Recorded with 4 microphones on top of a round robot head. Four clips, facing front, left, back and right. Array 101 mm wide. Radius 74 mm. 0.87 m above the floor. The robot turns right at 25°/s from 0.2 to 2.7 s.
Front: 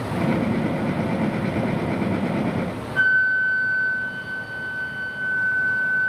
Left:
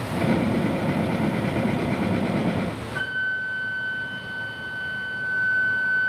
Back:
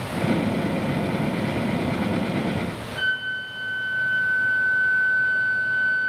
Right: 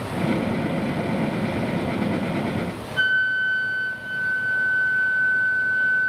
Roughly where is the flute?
Ahead left.